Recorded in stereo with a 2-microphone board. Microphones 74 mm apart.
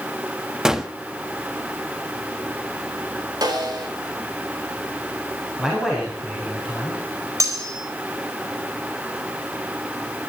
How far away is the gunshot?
About 1.3 m.